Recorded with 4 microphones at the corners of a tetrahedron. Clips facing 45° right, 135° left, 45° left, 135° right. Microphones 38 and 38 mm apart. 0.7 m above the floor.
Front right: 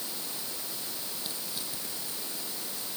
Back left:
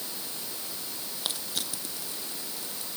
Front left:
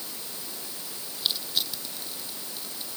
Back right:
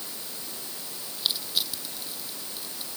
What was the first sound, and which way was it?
Crushing, 135° left.